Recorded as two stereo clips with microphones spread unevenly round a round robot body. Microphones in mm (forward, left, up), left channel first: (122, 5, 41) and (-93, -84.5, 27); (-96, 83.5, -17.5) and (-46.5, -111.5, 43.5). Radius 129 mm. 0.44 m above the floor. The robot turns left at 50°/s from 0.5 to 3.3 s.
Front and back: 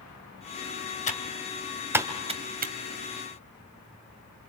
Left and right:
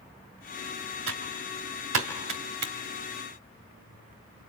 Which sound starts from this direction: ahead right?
Typing on a keyboard, at 1.1 s.